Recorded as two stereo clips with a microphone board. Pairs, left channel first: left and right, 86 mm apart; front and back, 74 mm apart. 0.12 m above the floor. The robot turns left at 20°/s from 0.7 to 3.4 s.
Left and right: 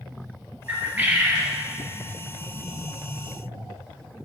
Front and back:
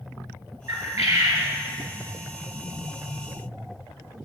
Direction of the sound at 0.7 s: 145° right.